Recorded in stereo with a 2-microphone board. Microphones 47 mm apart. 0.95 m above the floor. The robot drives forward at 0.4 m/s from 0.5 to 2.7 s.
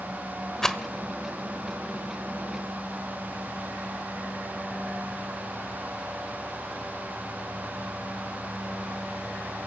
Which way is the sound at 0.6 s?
10° left (ahead or behind).